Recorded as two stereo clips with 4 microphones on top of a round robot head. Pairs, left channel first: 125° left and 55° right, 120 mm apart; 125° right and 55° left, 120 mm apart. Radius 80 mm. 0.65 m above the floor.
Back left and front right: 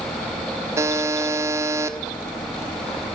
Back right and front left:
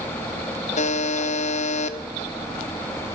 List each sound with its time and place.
0.8 s a buzzer: 120° right, 1.1 m